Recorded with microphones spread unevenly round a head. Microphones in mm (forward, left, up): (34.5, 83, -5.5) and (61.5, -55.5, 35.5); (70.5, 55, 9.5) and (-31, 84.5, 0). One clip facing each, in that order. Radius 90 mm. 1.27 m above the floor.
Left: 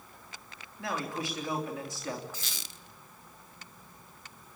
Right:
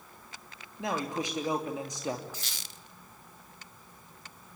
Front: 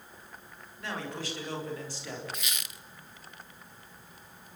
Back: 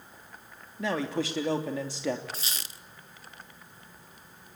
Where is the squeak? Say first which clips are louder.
Even, even; 105° left, 1.1 m.